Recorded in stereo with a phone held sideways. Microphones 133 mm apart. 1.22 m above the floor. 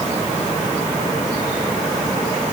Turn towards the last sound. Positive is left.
No sound to turn to.